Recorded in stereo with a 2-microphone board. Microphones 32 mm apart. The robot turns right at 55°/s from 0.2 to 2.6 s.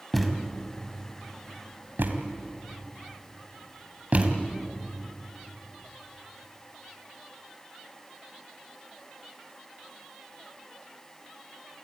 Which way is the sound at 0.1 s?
Centre (ahead or behind).